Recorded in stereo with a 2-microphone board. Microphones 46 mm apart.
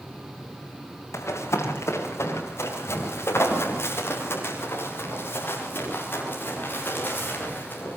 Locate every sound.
1.1 s running footsteps: 75° left (ahead or behind), 8.5 m; by 8.0 s 40° left (ahead or behind), 15.5 m